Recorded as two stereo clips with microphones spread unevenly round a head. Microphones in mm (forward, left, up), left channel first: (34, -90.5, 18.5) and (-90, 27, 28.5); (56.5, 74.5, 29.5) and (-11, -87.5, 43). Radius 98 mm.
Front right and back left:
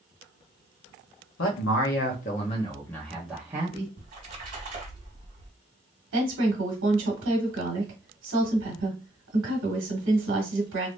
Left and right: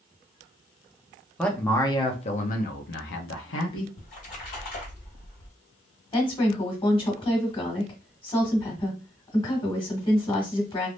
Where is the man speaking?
20° right, 1.0 m; by 3.9 s 65° left, 1.2 m.